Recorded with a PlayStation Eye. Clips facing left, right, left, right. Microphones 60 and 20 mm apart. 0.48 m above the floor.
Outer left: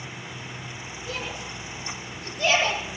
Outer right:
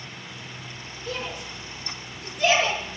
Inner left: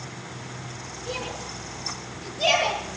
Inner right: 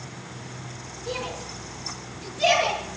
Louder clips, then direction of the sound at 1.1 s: Outer right 2 dB, inner right 1 dB; 55° right (ahead or behind).